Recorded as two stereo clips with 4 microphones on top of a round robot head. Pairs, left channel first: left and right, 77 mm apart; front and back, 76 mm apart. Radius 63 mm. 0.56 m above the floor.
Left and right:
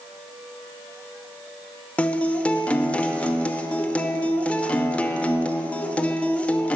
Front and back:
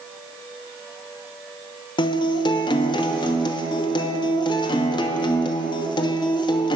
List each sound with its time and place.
2.0 s a guitar: 15° left, 0.9 m